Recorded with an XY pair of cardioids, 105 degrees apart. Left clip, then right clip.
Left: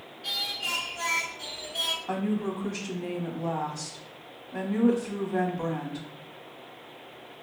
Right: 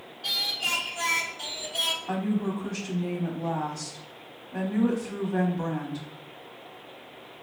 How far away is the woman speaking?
About 0.9 m.